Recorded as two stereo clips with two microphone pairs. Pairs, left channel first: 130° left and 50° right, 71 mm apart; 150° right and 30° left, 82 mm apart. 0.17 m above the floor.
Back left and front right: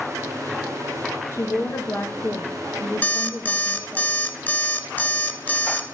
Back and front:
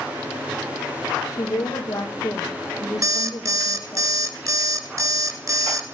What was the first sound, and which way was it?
A woman speaking, 175° left.